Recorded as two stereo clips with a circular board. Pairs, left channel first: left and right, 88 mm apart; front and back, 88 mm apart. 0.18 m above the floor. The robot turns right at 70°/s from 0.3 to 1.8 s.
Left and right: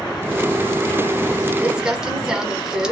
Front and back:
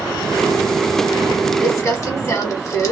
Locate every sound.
1.6 s crumpling: 25° right, 1.0 m; by 2.9 s 10° right, 1.0 m